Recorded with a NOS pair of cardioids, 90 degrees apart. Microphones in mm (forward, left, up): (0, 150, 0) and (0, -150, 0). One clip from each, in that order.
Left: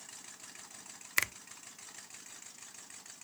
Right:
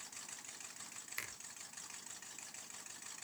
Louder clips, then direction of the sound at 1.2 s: Left 14 dB; 65° left.